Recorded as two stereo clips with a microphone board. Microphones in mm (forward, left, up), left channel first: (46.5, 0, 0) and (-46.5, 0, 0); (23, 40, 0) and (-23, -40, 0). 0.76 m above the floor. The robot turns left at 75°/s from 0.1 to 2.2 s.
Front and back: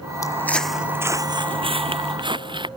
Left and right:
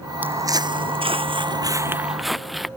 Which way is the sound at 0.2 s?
50° right.